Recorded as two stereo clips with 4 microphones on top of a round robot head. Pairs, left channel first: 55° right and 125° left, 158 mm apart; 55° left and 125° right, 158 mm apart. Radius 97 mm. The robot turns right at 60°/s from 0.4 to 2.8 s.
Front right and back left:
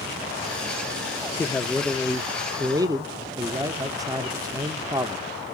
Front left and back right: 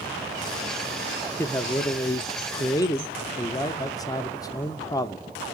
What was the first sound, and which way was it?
A man speaking, 5° left.